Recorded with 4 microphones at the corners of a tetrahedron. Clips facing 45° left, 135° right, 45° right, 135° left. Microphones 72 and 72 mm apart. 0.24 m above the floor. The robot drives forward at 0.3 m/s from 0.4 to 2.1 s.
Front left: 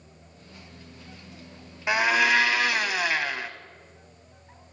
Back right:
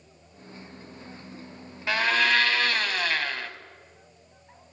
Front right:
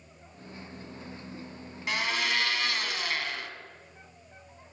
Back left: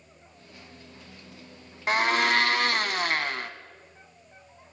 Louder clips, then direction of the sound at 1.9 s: Front left 2 dB, back left 7 dB; 110° left.